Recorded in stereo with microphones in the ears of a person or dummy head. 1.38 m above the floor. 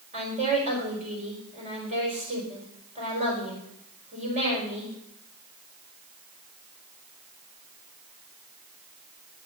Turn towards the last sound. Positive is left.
turn(degrees=-35)  # may be behind; listen again after turning